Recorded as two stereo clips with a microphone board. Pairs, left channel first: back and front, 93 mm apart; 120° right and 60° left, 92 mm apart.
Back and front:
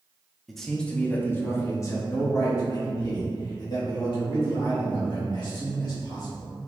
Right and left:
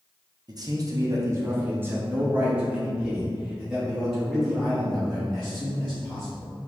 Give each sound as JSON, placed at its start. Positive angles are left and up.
{"t": 0.5, "sound": "a man speaking", "azimuth_deg": 90, "distance_m": 0.7}